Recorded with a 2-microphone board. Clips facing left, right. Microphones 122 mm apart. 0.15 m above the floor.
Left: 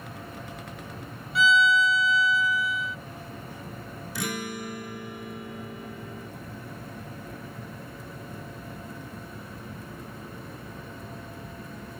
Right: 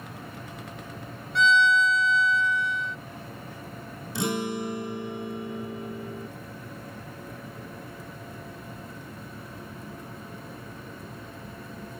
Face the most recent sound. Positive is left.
turn(degrees=-30)  # may be behind; listen again after turning